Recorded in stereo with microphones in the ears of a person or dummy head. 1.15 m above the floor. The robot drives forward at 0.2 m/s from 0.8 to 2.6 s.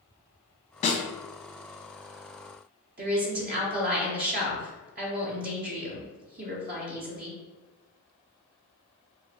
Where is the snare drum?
30° left (ahead or behind), 0.7 m; by 1.0 s 35° left (ahead or behind), 0.7 m.